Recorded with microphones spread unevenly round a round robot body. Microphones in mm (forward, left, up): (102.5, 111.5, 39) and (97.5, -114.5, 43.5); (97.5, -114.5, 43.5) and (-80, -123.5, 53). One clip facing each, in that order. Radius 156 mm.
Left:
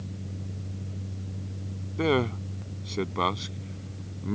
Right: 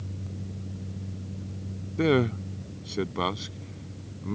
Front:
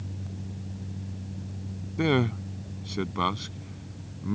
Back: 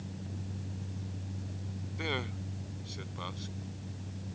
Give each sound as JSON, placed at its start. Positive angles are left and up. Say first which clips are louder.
{"t": 2.0, "sound": "a man speaking", "louder": "right 2 dB, front 14 dB", "azimuth_deg": -25}